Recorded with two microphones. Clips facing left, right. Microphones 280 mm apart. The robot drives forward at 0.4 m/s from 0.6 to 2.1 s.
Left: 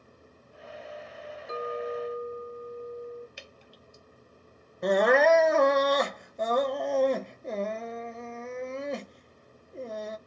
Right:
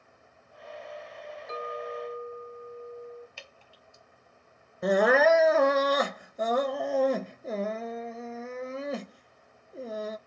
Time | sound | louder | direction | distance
1.5 | a clink | left 4 dB | 35° left (ahead or behind) | 0.9 m
3.4 | dripping | left 3 dB | 20° left (ahead or behind) | 1.0 m
4.8 | crying | even | 5° right (ahead or behind) | 0.6 m